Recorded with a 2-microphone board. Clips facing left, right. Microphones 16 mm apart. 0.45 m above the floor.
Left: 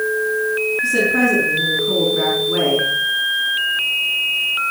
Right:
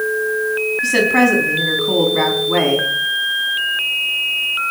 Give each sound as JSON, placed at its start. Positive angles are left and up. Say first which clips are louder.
{"t": 0.8, "sound": "a woman speaking", "louder": "right 3 dB", "side_deg": -70, "distance_m": 3.5}